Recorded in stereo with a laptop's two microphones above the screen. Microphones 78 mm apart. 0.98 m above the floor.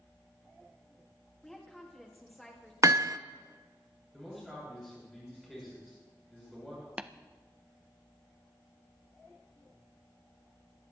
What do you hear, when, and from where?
1.4 s a woman speaking: 5° left (ahead or behind), 1.8 m
2.8 s hammering: 45° right (ahead or behind), 0.6 m
4.1 s a man speaking: 5° left (ahead or behind), 7.5 m
7.0 s tapping: 15° right (ahead or behind), 0.5 m